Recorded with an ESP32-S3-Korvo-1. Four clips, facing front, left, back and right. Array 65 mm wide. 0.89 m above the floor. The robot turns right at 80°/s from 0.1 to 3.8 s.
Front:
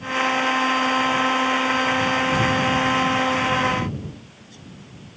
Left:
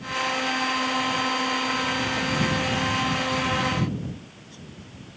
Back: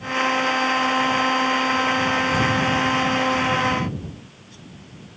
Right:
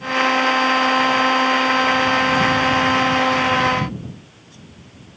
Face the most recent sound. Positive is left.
No sound to turn to.